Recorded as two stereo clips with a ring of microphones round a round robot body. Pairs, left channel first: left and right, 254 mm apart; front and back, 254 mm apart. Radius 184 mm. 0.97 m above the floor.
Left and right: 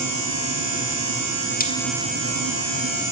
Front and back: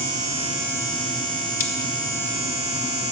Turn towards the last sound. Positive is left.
turn(degrees=35)